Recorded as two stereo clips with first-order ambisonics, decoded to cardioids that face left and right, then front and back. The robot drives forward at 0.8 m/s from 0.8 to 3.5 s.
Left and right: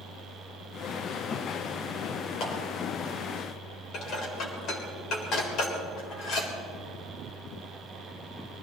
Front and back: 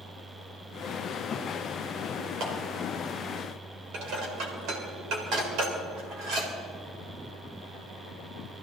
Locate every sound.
2.4 s a clap: 135° left, 4.5 m
3.9 s dishes clattering: 145° left, 3.5 m